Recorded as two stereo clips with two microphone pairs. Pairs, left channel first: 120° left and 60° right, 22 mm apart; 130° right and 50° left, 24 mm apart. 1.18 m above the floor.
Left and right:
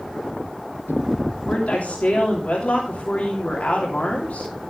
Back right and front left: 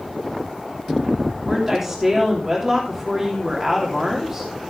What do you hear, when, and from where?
1.4 s a woman speaking: 125° left, 3 m